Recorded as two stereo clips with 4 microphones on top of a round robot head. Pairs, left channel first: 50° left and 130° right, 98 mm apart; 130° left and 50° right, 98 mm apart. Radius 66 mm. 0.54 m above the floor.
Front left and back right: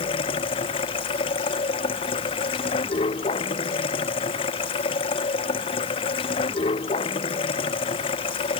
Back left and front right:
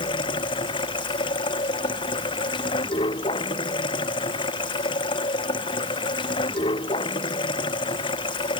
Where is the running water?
85° left.